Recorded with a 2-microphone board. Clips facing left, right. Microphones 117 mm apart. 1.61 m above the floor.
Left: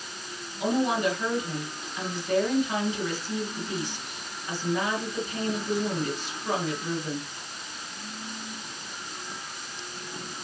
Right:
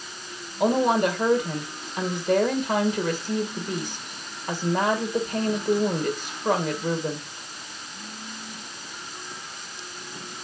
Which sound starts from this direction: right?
A woman speaking, at 0.6 s.